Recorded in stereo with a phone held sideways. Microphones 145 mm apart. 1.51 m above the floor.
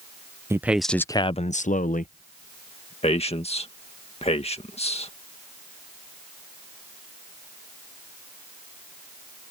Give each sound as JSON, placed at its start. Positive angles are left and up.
{"t": 0.5, "sound": "a man speaking", "side_deg": -20}
{"t": 3.0, "sound": "a man speaking", "side_deg": 50}